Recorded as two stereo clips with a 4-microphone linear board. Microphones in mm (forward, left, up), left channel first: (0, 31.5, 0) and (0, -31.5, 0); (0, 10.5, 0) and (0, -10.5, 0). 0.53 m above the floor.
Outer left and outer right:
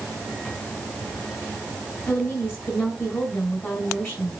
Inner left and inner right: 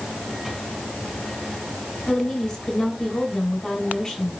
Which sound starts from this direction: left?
A woman speaking, at 2.1 s.